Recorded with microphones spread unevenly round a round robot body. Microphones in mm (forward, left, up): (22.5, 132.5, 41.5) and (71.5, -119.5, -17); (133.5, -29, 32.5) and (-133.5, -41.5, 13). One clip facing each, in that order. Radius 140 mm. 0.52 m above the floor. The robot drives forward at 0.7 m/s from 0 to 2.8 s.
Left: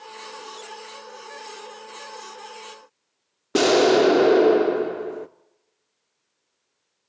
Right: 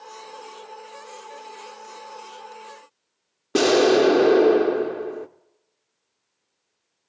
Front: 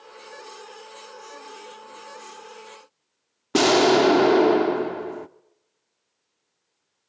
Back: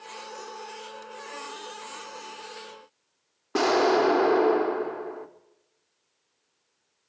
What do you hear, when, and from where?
3.5 s an explosion: straight ahead, 1.0 m